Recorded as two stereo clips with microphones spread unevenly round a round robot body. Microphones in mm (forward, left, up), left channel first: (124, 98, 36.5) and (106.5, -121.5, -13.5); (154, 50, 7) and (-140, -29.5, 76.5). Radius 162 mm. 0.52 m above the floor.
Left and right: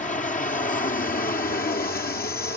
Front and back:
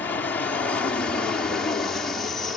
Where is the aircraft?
55° left; by 2.6 s 80° left.